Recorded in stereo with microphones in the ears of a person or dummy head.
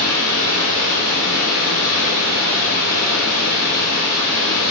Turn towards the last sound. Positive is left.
turn(degrees=-65)  # may be behind; listen again after turning